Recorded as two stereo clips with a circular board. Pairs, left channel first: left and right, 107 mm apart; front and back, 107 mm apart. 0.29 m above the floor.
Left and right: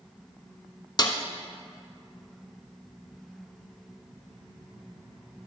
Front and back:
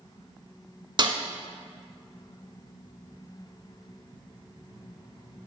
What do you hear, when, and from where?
1.0 s a snare drum: 135° left, 0.6 m